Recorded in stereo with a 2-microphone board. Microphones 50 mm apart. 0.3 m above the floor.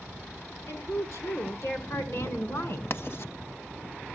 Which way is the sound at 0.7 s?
70° left (ahead or behind).